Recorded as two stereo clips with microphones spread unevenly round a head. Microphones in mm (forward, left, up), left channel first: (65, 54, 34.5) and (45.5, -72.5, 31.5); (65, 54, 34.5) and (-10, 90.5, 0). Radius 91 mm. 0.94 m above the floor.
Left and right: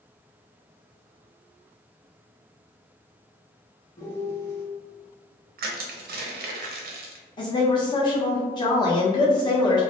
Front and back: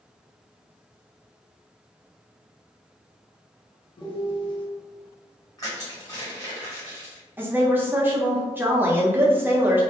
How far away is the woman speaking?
About 1.0 m.